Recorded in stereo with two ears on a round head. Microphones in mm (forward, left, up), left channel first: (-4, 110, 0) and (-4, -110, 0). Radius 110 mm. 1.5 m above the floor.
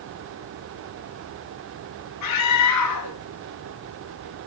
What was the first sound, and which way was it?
A scream, 80° left.